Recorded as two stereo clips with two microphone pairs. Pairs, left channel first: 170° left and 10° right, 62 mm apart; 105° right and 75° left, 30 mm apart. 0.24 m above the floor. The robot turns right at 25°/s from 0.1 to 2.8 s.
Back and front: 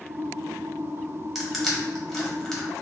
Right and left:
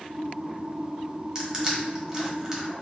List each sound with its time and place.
1.4 s crushing: 75° left, 1.1 m; by 2.6 s 105° left, 1.1 m